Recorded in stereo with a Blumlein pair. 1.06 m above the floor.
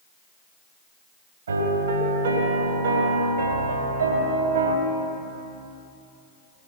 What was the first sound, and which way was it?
A piano, 70° right.